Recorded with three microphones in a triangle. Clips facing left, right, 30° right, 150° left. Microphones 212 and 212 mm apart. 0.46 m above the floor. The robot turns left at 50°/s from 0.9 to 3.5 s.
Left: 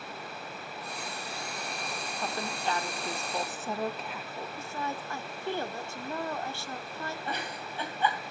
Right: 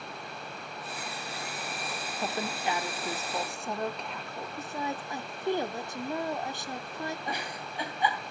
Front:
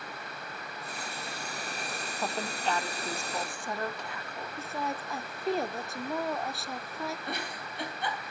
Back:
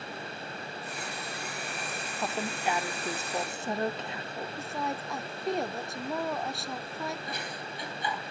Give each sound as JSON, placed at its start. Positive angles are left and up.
{"t": 2.2, "sound": "a woman speaking", "azimuth_deg": -120, "distance_m": 0.7}
{"t": 4.6, "sound": "a woman speaking", "azimuth_deg": -115, "distance_m": 0.7}
{"t": 7.3, "sound": "a giggle", "azimuth_deg": -15, "distance_m": 3.0}